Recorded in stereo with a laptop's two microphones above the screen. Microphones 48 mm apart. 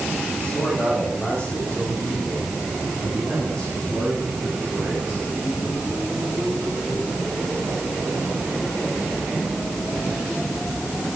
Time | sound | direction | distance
0.4 | a man speaking | 25° left (ahead or behind) | 4 m